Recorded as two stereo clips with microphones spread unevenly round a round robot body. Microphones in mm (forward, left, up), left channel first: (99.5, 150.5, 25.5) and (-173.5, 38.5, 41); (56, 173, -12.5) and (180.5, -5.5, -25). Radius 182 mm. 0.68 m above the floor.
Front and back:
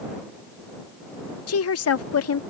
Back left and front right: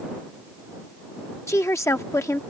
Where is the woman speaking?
45° left.